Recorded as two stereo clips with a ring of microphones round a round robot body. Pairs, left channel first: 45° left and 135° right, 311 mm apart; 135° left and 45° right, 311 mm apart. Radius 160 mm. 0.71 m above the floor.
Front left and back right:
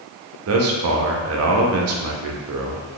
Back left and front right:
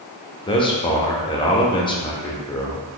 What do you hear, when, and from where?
0.5 s a man speaking: 155° right, 0.6 m